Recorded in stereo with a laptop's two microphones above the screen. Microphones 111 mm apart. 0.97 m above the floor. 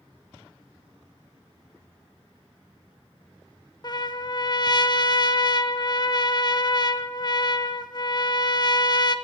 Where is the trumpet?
40° left (ahead or behind), 0.7 m.